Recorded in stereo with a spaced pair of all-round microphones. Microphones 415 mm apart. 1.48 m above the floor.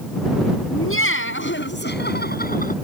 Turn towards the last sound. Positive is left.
turn(degrees=20)  # may be behind; listen again after turning